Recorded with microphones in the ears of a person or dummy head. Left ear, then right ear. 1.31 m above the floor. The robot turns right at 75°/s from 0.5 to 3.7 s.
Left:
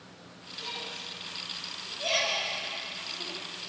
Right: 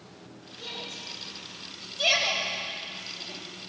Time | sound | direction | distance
0.6 | a shout | 25° right (ahead or behind) | 8.5 m